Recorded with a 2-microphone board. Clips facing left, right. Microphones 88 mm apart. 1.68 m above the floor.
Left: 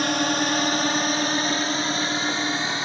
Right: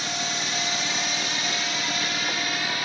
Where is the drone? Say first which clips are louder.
Left 8 dB; 60° left (ahead or behind); by 2.9 s 25° left (ahead or behind).